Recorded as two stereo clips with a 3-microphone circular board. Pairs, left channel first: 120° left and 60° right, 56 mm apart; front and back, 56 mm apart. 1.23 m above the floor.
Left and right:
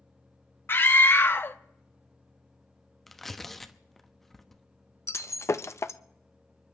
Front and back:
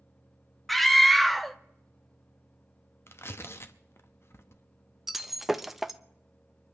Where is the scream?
85° left, 0.7 m.